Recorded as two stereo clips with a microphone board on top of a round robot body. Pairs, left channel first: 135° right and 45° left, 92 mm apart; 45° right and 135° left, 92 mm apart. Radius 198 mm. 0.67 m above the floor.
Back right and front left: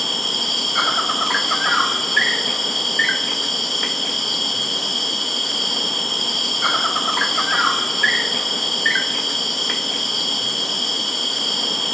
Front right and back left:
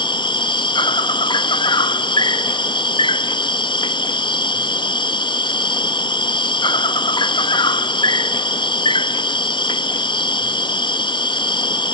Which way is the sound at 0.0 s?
45° right.